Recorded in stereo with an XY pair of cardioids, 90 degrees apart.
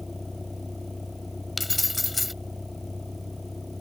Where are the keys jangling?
20° left.